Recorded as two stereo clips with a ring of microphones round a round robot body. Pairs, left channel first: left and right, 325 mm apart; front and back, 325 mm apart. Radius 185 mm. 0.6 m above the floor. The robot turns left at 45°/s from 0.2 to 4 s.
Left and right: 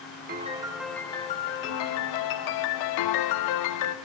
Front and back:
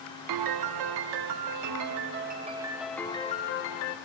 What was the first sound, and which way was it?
A piano, 155° right.